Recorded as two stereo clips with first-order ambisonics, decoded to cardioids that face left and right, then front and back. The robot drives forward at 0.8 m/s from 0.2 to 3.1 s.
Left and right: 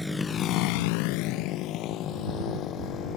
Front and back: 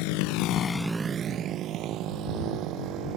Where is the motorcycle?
5° left; by 3.2 s 140° left.